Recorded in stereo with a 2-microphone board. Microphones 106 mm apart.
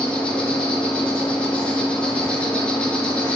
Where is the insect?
10° left (ahead or behind), 3 m.